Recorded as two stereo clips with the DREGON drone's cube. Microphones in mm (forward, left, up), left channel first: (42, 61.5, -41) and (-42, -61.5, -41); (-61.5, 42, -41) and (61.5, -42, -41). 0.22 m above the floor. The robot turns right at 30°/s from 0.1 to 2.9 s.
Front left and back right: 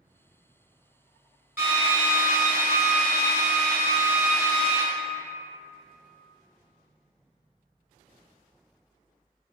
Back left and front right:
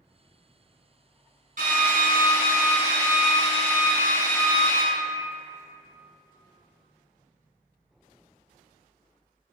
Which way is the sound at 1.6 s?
45° right.